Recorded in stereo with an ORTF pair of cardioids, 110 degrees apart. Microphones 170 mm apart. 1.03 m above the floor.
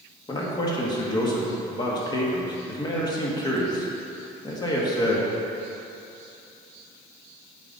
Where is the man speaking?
25° left, 1.7 m.